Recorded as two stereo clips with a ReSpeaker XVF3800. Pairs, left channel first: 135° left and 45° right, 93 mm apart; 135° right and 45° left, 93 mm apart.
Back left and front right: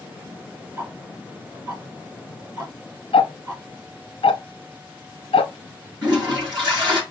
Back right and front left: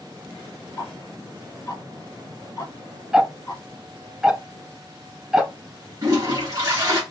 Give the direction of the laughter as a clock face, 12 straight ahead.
No laughter in this recording.